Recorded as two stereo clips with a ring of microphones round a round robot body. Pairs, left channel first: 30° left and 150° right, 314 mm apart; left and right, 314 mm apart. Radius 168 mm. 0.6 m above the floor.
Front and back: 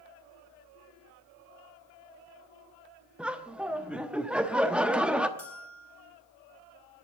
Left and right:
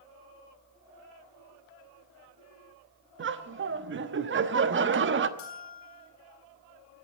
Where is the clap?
I don't hear a clap.